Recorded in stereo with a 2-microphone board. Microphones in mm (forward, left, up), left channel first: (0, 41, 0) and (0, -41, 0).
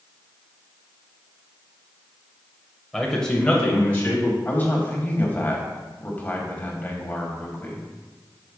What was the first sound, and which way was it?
A man speaking, 5° left (ahead or behind).